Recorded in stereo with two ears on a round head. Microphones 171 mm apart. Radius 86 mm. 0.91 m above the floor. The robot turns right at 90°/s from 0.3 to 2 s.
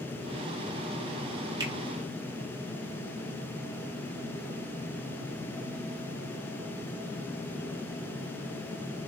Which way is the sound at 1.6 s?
20° right (ahead or behind).